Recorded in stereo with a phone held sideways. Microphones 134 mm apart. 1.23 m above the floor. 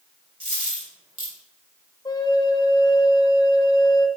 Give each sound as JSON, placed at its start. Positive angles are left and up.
{"t": 0.4, "sound": "a dropped coin", "side_deg": -45, "distance_m": 2.0}
{"t": 2.0, "sound": "a flute", "side_deg": 30, "distance_m": 0.6}